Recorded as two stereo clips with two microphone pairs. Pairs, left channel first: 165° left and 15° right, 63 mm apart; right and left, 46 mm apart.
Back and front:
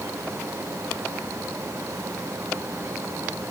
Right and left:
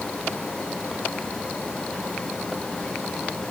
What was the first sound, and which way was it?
Only background noise.